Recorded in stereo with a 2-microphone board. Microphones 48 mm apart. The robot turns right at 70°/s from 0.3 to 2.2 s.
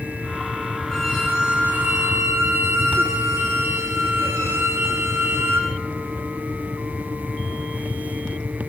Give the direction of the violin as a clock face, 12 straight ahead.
6 o'clock.